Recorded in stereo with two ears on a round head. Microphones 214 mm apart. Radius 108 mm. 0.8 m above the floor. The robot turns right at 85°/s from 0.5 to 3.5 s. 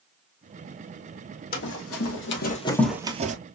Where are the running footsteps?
40° left (ahead or behind), 2.0 m; by 3.4 s 35° right (ahead or behind), 0.9 m.